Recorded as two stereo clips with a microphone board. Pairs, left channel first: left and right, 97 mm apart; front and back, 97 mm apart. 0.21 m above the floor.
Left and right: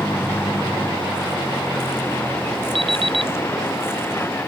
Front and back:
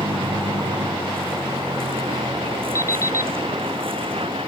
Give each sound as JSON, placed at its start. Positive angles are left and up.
{"t": 0.0, "sound": "a vehicle", "azimuth_deg": 160}
{"t": 2.8, "sound": "an alarm clock", "azimuth_deg": -60}